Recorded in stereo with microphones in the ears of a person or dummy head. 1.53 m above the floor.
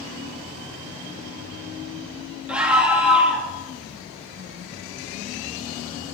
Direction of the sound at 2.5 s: 5° right (ahead or behind).